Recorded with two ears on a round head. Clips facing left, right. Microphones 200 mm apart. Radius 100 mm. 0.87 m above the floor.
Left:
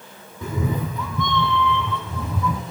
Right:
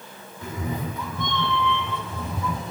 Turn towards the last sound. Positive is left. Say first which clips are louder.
# left 4 dB
turn(degrees=75)  # may be behind; listen again after turning